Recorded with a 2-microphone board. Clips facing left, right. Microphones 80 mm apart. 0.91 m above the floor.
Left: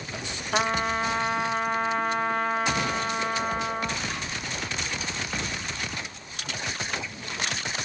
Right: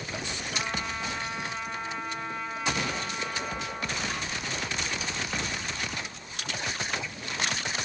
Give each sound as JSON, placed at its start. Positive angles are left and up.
{"t": 0.5, "sound": "a trumpet", "side_deg": 60, "distance_m": 1.0}